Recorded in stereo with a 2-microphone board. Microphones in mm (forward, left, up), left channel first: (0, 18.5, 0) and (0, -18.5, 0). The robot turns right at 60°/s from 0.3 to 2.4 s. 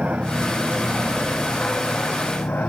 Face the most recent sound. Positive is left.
turn(degrees=80)